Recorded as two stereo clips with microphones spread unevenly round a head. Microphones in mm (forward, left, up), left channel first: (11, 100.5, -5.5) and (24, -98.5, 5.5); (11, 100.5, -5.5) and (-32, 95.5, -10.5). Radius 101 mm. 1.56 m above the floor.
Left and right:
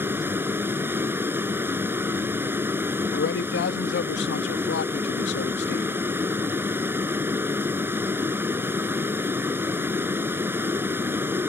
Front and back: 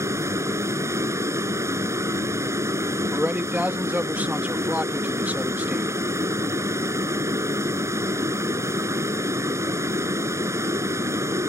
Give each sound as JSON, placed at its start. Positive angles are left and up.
{"t": 0.0, "sound": "a vehicle", "azimuth_deg": -165}
{"t": 3.1, "sound": "a man speaking", "azimuth_deg": 135}